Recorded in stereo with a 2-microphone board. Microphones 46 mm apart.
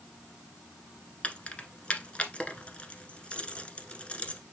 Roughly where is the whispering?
I don't hear whispering.